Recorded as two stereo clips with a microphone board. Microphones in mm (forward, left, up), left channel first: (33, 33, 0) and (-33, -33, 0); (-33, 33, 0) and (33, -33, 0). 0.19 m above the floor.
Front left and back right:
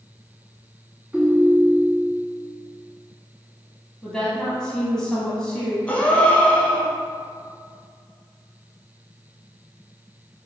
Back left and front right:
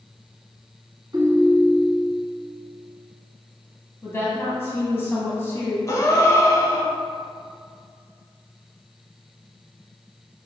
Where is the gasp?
110° left, 0.6 m.